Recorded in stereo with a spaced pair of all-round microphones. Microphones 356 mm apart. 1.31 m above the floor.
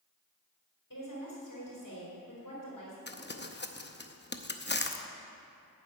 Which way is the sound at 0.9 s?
60° left (ahead or behind).